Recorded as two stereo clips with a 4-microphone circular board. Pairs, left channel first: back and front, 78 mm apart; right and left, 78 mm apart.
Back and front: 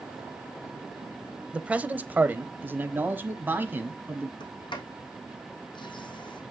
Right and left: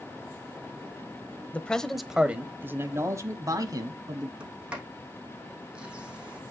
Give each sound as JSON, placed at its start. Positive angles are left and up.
{"t": 1.5, "sound": "a man speaking", "azimuth_deg": -50, "distance_m": 0.9}
{"t": 4.4, "sound": "a sliding door", "azimuth_deg": 170, "distance_m": 2.5}